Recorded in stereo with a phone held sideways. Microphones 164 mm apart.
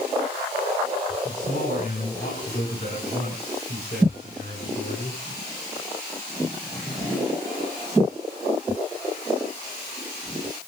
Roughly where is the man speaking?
Left.